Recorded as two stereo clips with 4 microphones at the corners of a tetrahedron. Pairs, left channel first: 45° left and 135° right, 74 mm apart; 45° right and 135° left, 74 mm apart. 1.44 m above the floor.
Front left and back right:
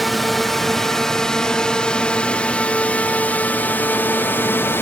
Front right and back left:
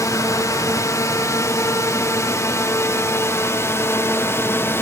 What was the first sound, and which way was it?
A drone, 45° right.